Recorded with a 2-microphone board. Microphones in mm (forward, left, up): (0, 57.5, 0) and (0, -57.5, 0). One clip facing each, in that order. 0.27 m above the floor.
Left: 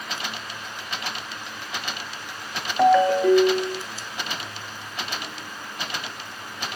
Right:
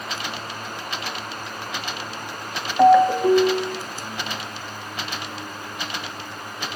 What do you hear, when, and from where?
2.8 s a ringtone: 15° right (ahead or behind), 0.6 m